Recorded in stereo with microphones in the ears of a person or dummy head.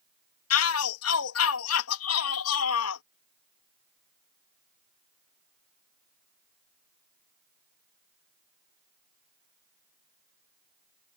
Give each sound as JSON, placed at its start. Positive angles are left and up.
{"t": 0.5, "sound": "a shout", "side_deg": 80}